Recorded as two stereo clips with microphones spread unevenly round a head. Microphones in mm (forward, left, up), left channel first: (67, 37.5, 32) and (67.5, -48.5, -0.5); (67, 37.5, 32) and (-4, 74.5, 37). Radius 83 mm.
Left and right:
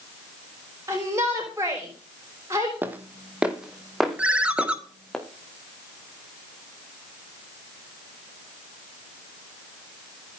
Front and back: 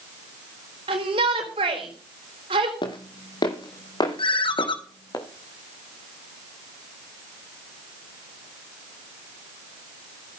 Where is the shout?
160° right, 4 m.